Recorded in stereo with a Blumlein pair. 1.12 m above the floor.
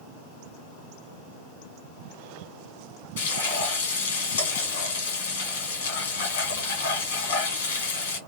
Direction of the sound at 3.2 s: 60° left.